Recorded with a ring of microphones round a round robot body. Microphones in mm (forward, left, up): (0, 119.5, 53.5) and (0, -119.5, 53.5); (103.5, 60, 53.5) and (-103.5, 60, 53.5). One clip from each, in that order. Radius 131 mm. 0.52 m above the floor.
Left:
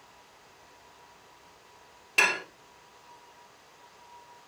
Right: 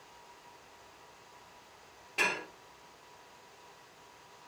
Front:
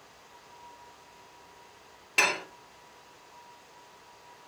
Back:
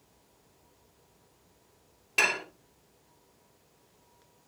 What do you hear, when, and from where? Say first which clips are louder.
2.2 s dishes clattering: left 7 dB, front 1 dB; 75° left, 0.8 m